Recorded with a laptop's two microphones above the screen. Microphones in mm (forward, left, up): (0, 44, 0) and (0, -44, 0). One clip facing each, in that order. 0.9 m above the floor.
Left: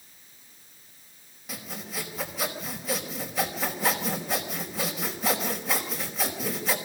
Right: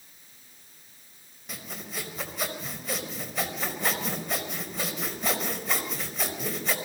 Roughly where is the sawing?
Centre.